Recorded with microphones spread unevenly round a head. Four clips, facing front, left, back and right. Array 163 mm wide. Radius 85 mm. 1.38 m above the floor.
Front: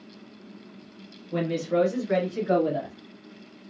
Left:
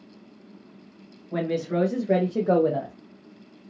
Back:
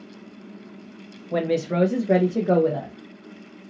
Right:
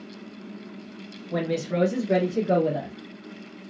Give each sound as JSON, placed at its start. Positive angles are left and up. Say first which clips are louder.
{"t": 1.3, "sound": "a woman speaking", "louder": "left 1 dB, back 2 dB", "azimuth_deg": -165, "distance_m": 1.2}